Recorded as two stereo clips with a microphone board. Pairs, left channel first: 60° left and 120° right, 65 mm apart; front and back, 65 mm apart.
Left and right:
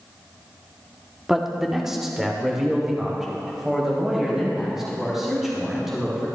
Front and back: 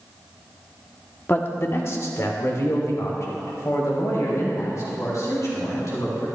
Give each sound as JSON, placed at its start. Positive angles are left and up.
{"t": 1.3, "sound": "a man speaking", "azimuth_deg": -40, "distance_m": 0.8}